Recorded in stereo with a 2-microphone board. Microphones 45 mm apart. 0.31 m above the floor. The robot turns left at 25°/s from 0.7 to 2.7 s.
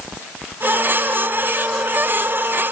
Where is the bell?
I don't hear a bell.